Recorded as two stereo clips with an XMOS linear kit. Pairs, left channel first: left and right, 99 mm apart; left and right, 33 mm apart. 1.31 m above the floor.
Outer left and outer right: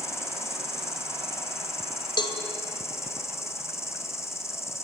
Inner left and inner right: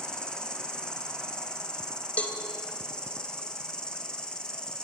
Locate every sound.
0.0 s an insect: 30° left (ahead or behind), 3.5 m
2.2 s a cowbell: 50° left (ahead or behind), 2.5 m